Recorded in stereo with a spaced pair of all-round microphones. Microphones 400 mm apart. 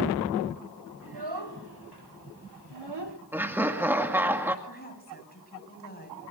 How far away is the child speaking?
About 5.5 m.